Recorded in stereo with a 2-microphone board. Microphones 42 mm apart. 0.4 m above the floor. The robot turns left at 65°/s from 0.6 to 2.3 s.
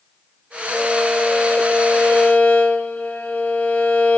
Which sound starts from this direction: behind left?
A violin, at 0.7 s.